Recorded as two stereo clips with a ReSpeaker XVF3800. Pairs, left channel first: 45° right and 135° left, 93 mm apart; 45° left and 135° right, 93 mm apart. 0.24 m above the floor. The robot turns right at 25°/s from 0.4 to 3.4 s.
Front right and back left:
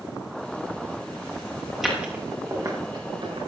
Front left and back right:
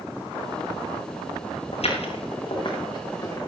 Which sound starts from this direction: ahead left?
Footsteps, at 1.7 s.